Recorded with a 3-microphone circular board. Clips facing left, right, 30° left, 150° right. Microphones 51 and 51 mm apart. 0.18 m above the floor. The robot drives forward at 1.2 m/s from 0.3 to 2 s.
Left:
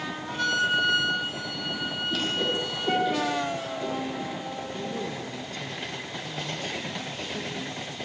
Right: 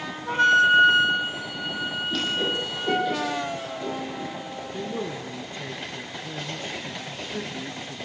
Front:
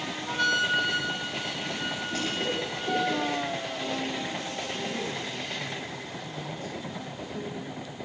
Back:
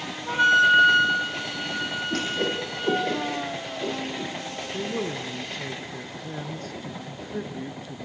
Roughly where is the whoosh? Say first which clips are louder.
Even, back 4 dB; behind.